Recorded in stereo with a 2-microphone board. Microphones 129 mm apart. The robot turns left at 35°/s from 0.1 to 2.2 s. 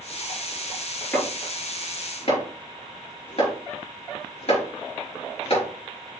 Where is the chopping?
15° left (ahead or behind), 4 m; by 5.7 s 50° left (ahead or behind), 4 m.